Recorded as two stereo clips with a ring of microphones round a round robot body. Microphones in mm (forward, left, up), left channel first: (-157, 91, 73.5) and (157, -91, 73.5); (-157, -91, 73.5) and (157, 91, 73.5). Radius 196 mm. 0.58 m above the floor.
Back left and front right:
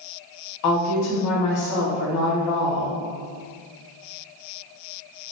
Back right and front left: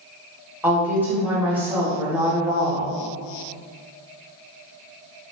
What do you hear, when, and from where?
0.6 s a woman speaking: 115° left, 1.3 m